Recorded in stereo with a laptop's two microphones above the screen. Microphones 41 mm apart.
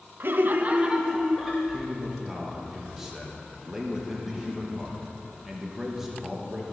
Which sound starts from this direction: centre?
A man speaking, at 1.7 s.